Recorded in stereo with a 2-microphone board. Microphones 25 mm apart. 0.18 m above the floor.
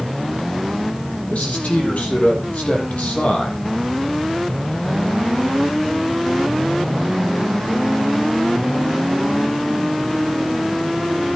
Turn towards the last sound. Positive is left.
turn(degrees=75)  # may be behind; listen again after turning